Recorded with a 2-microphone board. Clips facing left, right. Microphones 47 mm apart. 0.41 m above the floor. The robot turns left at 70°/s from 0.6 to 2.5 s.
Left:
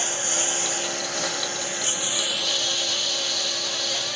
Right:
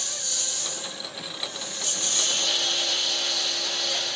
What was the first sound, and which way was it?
A lawn mower, 135° left.